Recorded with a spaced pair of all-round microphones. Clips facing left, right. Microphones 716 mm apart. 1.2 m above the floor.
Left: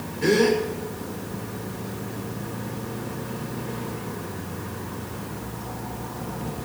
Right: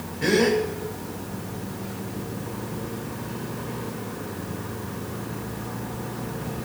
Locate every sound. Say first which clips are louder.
0.2 s a gasp: left 1 dB; 10° right (ahead or behind), 1.3 m